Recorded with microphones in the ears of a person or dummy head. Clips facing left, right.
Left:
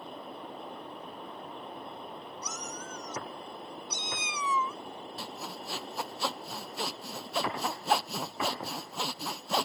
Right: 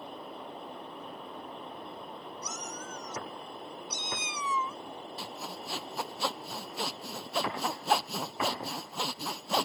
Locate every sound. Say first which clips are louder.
2.4 s a cat meowing: even; 55° left (ahead or behind)
5.2 s sawing: even; 10° right (ahead or behind)